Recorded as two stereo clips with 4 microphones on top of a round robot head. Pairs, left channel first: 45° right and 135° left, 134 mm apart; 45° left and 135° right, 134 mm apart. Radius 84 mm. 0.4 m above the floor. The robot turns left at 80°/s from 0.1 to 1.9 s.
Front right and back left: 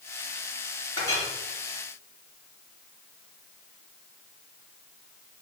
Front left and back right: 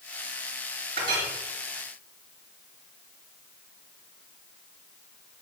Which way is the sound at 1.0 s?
105° right.